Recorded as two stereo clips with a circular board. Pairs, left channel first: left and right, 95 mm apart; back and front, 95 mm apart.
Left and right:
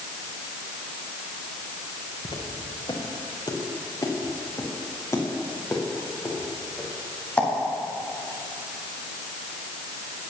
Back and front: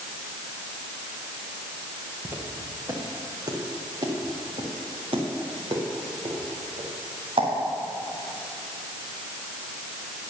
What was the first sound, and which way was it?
Footsteps, 65° left.